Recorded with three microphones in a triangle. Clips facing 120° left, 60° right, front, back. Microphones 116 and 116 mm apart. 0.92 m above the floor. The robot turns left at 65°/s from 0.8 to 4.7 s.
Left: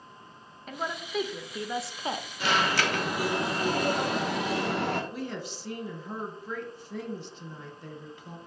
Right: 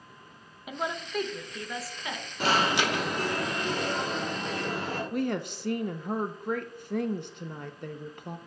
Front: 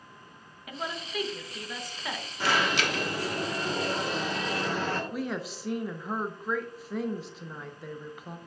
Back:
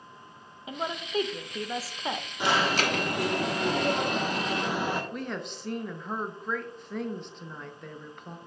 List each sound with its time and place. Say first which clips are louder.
0.7 s a woman speaking: right 1 dB, back 4 dB; 135° right, 0.6 m; by 2.3 s 130° left, 0.6 m
2.4 s an alarm: right 1 dB, back 1 dB; 105° right, 1.0 m; by 5.0 s 105° left, 1.0 m
5.1 s a woman speaking: right 6 dB, front 2 dB; 85° right, 0.5 m